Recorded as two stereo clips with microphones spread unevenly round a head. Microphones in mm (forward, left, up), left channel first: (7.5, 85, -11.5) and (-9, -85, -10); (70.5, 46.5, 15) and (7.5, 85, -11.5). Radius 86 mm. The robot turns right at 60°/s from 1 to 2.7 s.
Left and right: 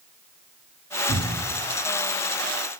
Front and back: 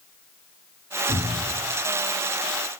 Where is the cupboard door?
165° right, 1.8 m; by 1.6 s 140° right, 1.8 m.